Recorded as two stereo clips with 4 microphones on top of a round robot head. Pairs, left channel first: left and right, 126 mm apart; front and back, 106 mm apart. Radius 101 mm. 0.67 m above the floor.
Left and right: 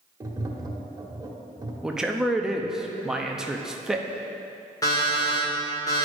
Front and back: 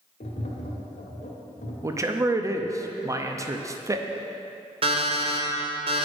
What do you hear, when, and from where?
0.2 s tapping: 25° right, 1.1 m
1.8 s a man speaking: 170° right, 0.7 m
4.8 s an alarm clock: 155° left, 1.6 m